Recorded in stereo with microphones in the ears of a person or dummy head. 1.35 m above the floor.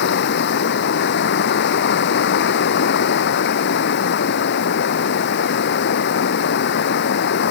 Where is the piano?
No piano in this recording.